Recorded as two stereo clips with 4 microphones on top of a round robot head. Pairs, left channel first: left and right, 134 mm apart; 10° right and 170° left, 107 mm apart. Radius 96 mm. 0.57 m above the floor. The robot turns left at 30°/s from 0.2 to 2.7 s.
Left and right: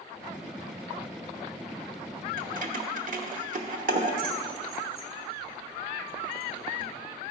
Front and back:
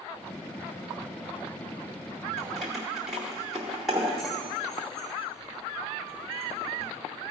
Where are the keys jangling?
90° right, 0.9 m; by 6.9 s 100° right, 0.9 m.